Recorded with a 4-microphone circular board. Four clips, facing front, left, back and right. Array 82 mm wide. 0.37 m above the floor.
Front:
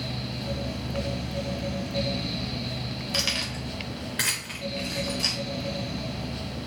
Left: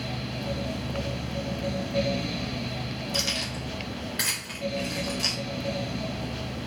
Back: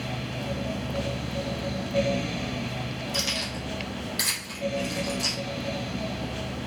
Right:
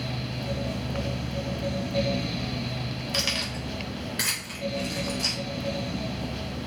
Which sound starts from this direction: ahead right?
Keys jangling, at 3.1 s.